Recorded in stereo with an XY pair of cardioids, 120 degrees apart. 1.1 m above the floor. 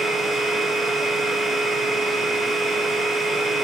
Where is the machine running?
Straight ahead, 2.5 m.